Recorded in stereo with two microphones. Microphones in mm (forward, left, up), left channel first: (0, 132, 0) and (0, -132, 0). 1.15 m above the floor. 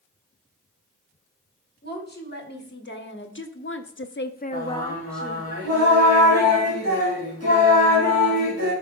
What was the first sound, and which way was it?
A woman speaking, 40° left (ahead or behind).